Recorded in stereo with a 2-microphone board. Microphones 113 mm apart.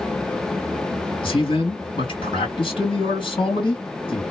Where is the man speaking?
50° left (ahead or behind), 2 m.